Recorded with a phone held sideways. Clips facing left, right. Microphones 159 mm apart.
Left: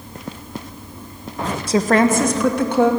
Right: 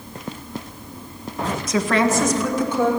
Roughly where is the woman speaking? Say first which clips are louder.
Left 4 dB; left.